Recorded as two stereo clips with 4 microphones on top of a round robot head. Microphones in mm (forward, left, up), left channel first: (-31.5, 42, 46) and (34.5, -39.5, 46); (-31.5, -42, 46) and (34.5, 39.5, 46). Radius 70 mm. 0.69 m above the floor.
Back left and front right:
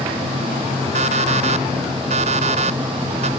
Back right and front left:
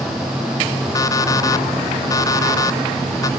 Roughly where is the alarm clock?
Right.